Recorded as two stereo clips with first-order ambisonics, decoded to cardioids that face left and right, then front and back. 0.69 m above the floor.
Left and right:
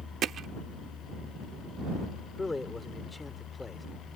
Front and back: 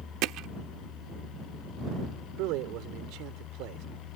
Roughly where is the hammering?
Behind right.